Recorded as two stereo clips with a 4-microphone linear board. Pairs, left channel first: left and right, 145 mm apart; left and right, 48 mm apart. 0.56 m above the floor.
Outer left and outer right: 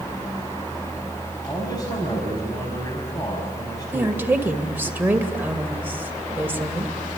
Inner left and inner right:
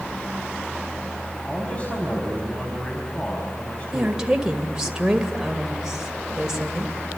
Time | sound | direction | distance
1.4 | a man speaking | 25° left (ahead or behind) | 4.5 m
3.9 | a woman speaking | 15° right (ahead or behind) | 2 m